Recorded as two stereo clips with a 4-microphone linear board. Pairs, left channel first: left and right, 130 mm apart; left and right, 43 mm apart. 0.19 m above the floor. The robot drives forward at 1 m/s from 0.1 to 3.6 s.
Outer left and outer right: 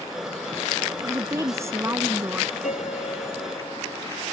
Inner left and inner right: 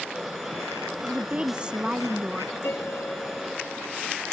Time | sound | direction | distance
1.0 | a woman speaking | 25° right (ahead or behind) | ?
2.6 | a piano | 75° left (ahead or behind) | ?